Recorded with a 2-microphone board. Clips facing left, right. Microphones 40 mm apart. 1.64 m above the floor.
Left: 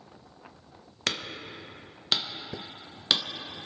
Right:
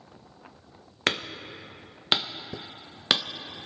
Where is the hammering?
30° right (ahead or behind), 0.8 m.